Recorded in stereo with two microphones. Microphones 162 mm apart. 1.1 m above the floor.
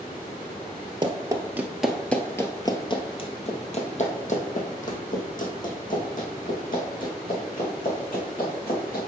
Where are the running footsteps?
30° right (ahead or behind), 1.2 m; by 9.0 s 70° left (ahead or behind), 5 m.